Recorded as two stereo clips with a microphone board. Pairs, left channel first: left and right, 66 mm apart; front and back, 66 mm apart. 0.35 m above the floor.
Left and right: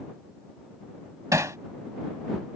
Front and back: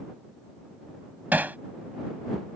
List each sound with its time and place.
1.3 s hammering: 115° right